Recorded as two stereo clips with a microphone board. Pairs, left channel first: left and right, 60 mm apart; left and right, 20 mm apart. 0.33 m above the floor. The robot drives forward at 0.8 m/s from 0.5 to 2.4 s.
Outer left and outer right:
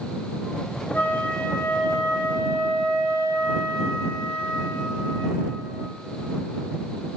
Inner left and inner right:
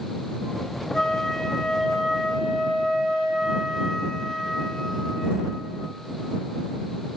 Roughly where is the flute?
Left.